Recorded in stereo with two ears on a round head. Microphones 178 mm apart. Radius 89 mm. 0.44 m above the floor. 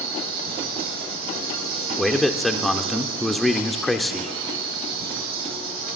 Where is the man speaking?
Centre (ahead or behind), 0.8 m.